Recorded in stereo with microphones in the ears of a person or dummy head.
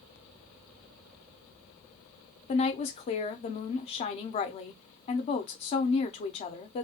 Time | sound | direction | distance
2.5 | a woman speaking | 25° left (ahead or behind) | 0.6 m